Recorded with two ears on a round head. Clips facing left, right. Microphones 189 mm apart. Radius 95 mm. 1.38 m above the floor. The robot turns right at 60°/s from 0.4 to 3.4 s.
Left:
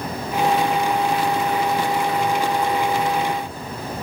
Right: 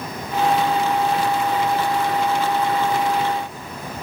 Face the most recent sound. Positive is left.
No sound to turn to.